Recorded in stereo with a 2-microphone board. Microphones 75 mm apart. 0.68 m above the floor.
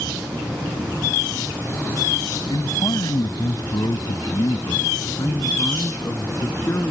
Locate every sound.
2.5 s a man speaking: 70° left (ahead or behind); by 6.9 s 40° left (ahead or behind)